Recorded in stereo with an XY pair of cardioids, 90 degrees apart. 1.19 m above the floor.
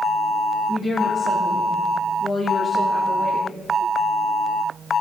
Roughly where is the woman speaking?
Ahead left.